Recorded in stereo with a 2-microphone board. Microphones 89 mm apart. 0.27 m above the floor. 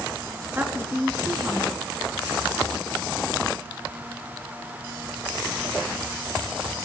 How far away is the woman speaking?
About 4 m.